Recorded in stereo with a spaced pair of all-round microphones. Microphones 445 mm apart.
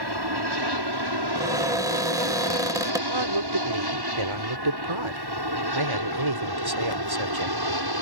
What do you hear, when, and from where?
0.0 s an aircraft: 60° right (ahead or behind); by 8.0 s 55° right (ahead or behind)
1.4 s a cupboard door: 10° right (ahead or behind)
3.1 s a man speaking: 85° right